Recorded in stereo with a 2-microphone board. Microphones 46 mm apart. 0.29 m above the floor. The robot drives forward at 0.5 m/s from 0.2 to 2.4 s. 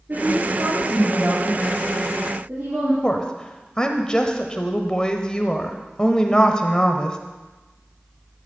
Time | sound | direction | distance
0.1 | a woman speaking | 50° right (ahead or behind) | 5.5 m
3.0 | a woman speaking | 20° left (ahead or behind) | 1.0 m